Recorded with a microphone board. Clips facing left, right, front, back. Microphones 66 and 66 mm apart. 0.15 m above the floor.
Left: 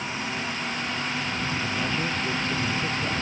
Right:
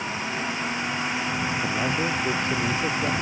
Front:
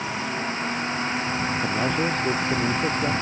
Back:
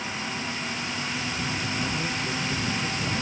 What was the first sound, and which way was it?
A man speaking, 25° right.